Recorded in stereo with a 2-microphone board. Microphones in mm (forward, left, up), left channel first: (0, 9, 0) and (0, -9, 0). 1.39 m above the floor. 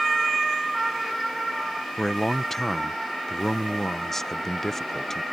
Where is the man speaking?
20° left (ahead or behind).